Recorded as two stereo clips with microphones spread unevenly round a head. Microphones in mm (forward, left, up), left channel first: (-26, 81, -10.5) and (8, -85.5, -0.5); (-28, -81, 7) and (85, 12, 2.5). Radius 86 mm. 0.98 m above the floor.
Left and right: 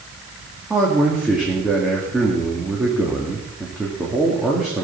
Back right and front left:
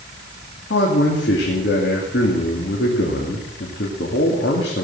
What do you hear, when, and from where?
0.7 s a man speaking: 165° right, 2.5 m